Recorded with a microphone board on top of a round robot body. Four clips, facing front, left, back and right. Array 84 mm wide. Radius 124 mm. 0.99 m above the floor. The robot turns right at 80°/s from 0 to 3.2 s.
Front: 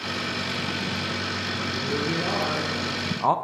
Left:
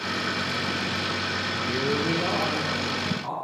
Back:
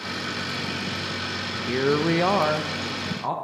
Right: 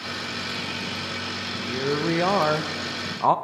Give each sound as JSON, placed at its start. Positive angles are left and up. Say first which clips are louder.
{"t": 1.7, "sound": "a woman speaking", "louder": "right 2 dB, back 8 dB", "azimuth_deg": 170, "distance_m": 0.7}